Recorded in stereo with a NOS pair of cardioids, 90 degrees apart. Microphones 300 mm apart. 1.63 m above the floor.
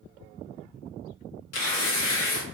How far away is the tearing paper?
About 1.8 m.